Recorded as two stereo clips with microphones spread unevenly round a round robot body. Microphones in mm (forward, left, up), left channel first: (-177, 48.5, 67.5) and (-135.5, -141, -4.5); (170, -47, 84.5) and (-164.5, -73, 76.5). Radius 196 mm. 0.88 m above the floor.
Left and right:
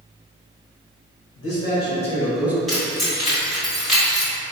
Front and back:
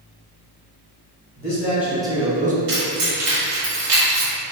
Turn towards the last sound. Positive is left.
turn(degrees=-165)